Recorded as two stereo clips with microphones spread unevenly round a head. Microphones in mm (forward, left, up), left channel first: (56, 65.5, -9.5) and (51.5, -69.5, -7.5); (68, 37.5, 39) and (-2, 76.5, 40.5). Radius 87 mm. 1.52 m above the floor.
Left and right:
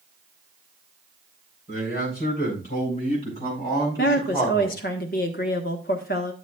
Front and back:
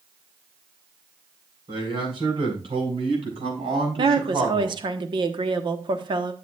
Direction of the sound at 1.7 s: 130° left.